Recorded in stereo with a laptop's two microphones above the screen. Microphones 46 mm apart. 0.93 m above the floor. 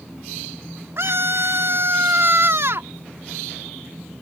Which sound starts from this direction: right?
A scream, at 1.0 s.